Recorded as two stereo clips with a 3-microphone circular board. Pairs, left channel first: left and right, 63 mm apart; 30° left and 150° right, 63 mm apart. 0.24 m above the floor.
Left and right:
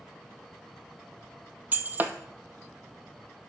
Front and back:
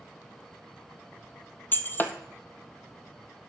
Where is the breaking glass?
30° right, 0.8 m.